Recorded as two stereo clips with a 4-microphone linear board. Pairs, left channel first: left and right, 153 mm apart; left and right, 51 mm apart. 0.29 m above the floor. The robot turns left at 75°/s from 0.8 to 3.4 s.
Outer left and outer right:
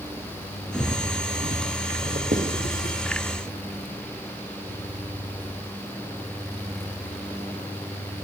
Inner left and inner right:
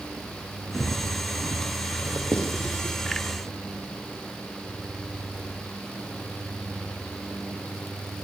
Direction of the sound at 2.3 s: 60° right (ahead or behind).